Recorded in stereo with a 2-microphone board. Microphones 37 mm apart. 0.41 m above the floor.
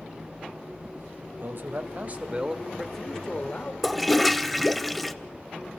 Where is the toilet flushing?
Centre (ahead or behind), 0.8 m.